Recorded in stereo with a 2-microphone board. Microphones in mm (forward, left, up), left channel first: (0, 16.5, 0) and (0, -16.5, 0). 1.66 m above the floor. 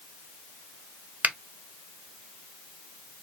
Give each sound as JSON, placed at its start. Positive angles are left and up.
{"t": 1.2, "sound": "a finger snap", "side_deg": -55, "distance_m": 0.7}